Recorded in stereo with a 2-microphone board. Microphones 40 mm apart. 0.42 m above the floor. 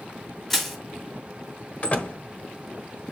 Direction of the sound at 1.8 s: 40° left (ahead or behind).